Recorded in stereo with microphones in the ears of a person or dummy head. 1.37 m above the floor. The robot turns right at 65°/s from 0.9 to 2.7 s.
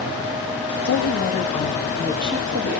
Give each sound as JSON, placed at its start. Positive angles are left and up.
{"t": 0.8, "sound": "a woman speaking", "azimuth_deg": 120, "distance_m": 2.5}